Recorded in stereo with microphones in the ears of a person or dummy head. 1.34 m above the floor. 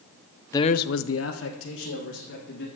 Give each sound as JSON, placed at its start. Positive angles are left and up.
{"t": 0.5, "sound": "a man speaking", "side_deg": 15, "distance_m": 0.5}